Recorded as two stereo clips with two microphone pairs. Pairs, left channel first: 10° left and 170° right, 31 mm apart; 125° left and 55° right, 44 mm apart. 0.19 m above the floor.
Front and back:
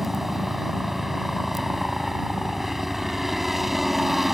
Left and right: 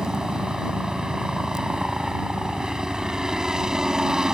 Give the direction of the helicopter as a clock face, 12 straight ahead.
3 o'clock.